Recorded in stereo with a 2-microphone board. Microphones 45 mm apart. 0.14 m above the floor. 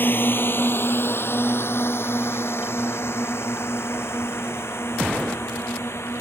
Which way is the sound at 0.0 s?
50° left (ahead or behind).